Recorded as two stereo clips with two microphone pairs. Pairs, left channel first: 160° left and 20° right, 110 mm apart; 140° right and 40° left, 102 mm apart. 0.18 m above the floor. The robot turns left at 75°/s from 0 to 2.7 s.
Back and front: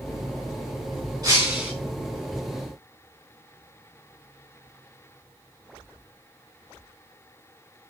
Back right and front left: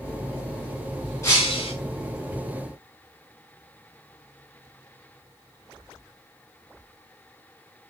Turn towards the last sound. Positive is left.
turn(degrees=170)